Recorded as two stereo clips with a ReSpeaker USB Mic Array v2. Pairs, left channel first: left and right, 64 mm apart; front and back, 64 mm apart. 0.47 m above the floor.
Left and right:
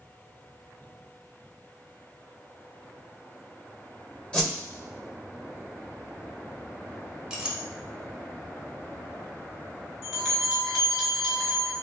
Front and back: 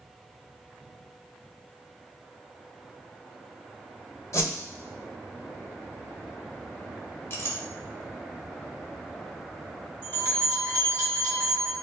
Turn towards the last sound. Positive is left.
turn(degrees=180)